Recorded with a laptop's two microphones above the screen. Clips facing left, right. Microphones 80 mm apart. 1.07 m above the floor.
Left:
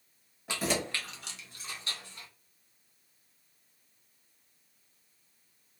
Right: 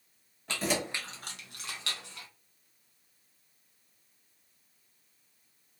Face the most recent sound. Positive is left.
turn(degrees=-85)